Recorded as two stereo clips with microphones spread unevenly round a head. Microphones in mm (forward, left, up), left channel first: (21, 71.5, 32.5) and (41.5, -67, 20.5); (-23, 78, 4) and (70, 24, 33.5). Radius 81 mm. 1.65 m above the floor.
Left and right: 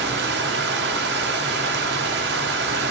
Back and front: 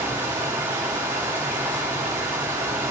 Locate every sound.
0.0 s running water: 100° right, 0.9 m